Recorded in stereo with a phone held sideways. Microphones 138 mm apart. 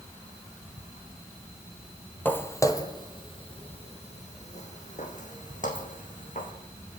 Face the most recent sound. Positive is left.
turn(degrees=70)  # may be behind; listen again after turning